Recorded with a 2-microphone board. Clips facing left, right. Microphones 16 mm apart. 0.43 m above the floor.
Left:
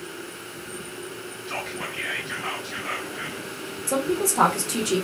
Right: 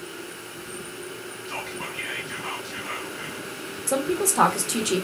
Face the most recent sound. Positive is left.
turn(degrees=-20)  # may be behind; listen again after turning